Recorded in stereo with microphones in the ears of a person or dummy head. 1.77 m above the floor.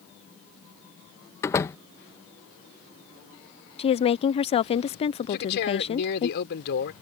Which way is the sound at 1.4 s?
15° left (ahead or behind).